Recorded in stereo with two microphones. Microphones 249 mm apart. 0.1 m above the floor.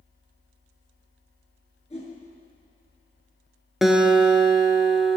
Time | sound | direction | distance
1.9 | a whoosh | 25° left (ahead or behind) | 1.7 m
3.8 | a guitar | centre (ahead or behind) | 0.7 m